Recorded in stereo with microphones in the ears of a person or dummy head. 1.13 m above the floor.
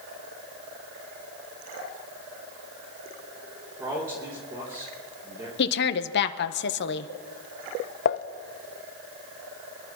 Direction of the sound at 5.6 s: 55° left (ahead or behind).